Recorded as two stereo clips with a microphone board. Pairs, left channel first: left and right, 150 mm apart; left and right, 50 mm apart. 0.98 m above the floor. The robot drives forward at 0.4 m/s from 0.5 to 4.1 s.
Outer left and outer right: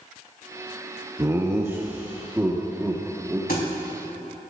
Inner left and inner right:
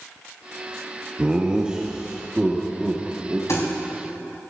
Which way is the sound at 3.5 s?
80° left.